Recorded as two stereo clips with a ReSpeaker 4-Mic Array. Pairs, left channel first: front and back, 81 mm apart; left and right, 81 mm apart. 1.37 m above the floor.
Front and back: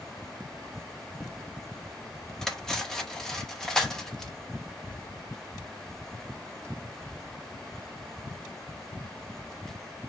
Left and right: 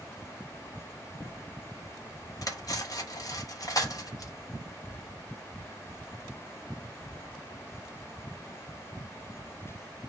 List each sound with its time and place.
2.4 s cutlery clinking: 80° left, 0.8 m